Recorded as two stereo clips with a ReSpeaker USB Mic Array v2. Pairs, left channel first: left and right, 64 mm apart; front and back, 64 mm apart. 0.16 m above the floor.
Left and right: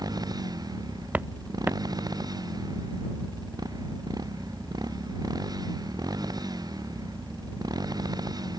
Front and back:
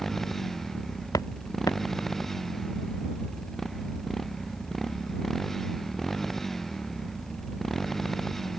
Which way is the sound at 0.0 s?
85° right.